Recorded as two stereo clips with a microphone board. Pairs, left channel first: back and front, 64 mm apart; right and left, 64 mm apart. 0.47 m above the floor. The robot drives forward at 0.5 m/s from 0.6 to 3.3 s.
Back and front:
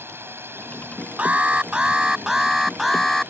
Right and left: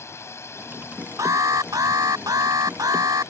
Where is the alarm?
70° left; by 3.3 s 95° left.